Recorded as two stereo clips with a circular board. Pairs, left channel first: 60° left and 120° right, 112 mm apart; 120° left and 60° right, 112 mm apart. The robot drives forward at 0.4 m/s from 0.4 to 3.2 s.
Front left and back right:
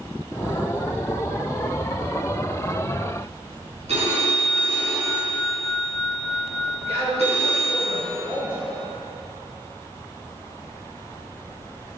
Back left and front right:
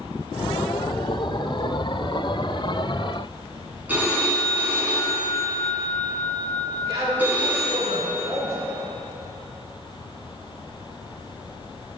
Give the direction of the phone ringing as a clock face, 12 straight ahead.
5 o'clock.